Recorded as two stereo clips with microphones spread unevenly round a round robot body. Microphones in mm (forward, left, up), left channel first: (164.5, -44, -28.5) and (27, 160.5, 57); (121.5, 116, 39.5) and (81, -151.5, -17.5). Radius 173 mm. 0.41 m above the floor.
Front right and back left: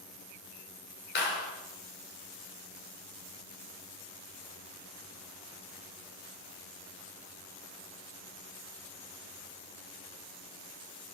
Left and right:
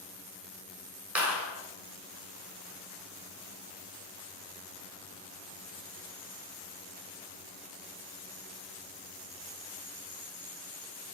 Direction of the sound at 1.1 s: 15° right.